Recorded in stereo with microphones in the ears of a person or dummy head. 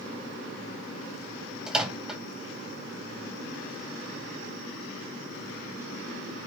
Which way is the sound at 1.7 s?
5° right (ahead or behind).